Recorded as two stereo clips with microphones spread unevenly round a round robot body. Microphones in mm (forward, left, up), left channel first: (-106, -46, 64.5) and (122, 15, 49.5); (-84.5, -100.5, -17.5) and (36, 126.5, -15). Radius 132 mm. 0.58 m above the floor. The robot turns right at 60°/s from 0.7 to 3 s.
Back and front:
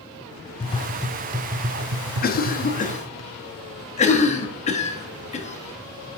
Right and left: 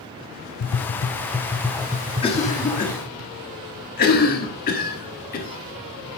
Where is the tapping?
95° right, 0.7 m; by 3.2 s 45° left, 0.7 m.